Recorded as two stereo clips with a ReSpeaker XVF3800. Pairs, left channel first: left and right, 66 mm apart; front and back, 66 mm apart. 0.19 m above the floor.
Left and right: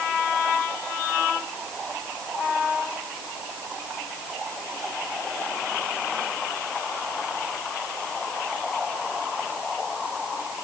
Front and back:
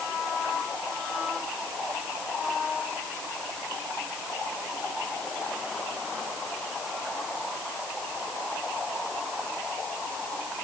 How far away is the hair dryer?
No hair dryer in this recording.